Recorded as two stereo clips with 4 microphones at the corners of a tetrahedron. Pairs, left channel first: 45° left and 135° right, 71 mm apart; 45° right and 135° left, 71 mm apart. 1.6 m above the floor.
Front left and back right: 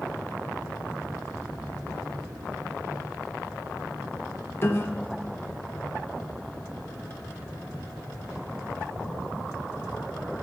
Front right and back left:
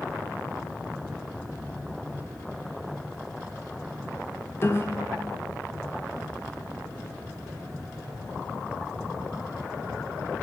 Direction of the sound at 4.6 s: Straight ahead.